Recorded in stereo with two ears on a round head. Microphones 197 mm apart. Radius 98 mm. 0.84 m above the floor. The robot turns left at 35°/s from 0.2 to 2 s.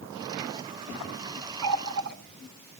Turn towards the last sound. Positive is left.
turn(degrees=-55)  # may be behind; listen again after turning